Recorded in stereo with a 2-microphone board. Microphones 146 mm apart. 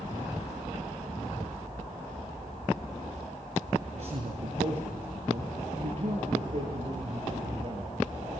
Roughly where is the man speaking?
Right.